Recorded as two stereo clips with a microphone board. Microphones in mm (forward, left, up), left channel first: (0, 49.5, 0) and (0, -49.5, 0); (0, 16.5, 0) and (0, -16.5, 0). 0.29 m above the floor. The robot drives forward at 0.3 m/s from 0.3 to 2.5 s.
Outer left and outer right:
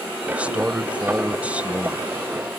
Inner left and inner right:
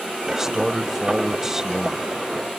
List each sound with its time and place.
0.3 s a man speaking: 15° right (ahead or behind), 1.1 m